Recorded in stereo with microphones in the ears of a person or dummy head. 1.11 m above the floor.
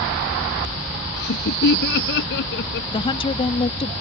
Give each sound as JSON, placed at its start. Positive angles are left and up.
{"t": 1.2, "sound": "laughter", "side_deg": 60}
{"t": 2.9, "sound": "a woman speaking", "side_deg": 25}